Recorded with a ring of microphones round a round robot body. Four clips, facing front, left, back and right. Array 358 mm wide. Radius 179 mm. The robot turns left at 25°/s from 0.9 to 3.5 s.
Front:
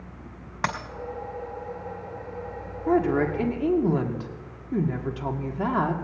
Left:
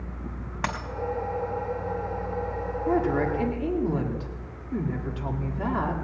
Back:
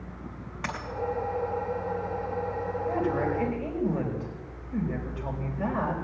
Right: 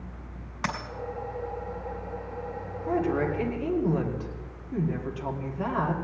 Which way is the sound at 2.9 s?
20° left.